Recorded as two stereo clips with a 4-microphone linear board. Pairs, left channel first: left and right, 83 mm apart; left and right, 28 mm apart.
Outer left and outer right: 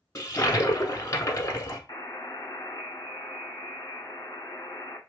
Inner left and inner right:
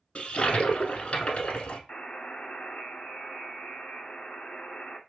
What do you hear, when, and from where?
0.1 s a toilet flushing: 40° left (ahead or behind), 1.0 m
1.9 s a buzzer: 45° left (ahead or behind), 1.2 m